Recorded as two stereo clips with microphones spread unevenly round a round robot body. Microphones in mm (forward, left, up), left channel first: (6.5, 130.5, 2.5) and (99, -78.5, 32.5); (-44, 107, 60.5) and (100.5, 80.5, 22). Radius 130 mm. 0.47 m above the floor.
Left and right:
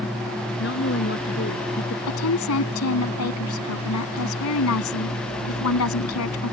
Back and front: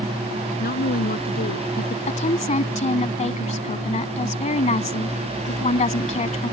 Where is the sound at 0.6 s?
160° left.